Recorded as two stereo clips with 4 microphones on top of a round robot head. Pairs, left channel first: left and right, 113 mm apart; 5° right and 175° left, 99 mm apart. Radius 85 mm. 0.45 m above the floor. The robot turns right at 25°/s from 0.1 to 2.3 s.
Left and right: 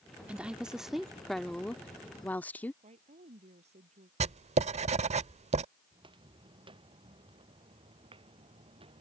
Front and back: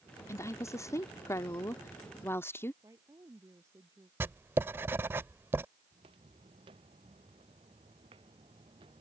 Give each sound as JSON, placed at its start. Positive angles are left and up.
{"t": 0.3, "sound": "a woman speaking", "azimuth_deg": -20}
{"t": 2.8, "sound": "a woman speaking", "azimuth_deg": -115}
{"t": 4.2, "sound": "writing", "azimuth_deg": -115}
{"t": 5.9, "sound": "footsteps", "azimuth_deg": -135}